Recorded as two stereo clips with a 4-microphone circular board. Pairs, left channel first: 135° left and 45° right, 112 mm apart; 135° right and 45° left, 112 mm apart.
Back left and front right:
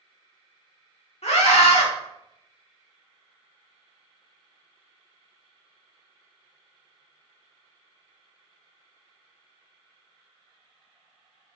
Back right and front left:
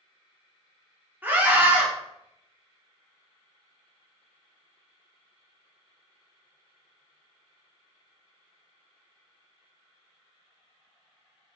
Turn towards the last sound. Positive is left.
turn(degrees=115)